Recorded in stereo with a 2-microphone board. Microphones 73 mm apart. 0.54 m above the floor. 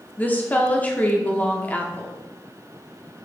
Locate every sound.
0.2 s a woman speaking: 25° left (ahead or behind), 1.0 m